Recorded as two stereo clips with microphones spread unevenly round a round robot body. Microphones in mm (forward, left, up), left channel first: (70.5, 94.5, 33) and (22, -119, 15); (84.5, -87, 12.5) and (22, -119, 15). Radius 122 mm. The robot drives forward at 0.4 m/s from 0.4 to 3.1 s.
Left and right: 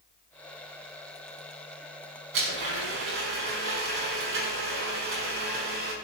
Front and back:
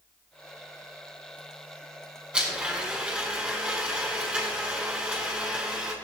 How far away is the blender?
About 7 m.